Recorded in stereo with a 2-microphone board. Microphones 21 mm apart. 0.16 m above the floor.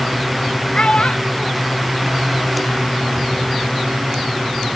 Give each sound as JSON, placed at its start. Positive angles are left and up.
{"t": 0.7, "sound": "a child speaking", "side_deg": 55}